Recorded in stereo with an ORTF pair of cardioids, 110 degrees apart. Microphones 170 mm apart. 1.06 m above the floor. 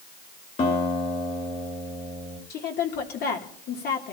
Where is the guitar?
40° left, 3 m.